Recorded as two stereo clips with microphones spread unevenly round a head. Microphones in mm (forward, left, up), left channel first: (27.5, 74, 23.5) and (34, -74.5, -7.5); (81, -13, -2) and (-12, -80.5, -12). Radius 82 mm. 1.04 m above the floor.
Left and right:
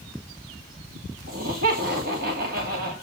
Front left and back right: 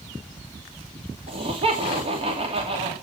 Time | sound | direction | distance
1.3 | laughter | 110° right | 2.5 m